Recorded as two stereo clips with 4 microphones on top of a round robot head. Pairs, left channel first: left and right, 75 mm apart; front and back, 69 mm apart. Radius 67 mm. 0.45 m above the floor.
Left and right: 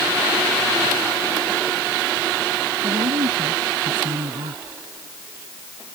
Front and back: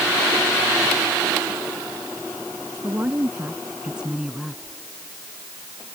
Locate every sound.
2.8 s a woman speaking: 105° right; by 4.8 s 85° right